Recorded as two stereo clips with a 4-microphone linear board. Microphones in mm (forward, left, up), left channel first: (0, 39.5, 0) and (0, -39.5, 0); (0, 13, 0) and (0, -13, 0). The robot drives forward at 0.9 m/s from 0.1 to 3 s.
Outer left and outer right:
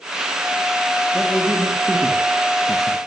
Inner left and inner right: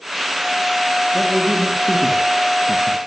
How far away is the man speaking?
About 2.5 m.